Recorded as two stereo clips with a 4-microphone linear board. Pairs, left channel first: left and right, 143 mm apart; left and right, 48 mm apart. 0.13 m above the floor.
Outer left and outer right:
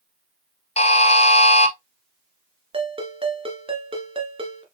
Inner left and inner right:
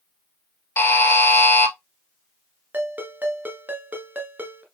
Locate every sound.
0.8 s a buzzer: 50° left (ahead or behind), 0.8 m
2.7 s a ringtone: 40° right (ahead or behind), 1.4 m